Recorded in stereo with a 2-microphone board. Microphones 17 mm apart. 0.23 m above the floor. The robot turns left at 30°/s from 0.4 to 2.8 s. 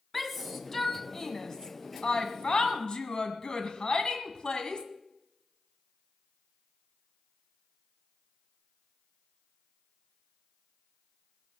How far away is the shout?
About 1.7 m.